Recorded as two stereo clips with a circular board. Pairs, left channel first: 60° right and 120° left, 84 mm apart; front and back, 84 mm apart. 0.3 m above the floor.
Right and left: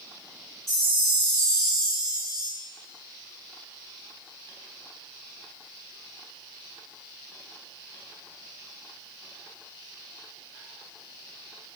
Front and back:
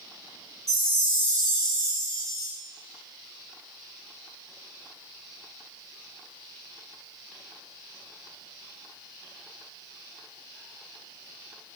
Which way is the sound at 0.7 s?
25° left.